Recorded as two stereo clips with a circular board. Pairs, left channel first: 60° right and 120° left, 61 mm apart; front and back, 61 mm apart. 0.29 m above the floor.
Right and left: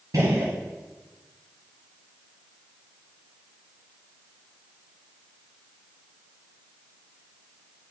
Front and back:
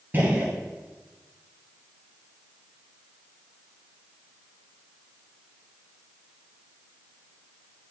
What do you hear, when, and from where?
0.1 s a gunshot: 125° left, 1.9 m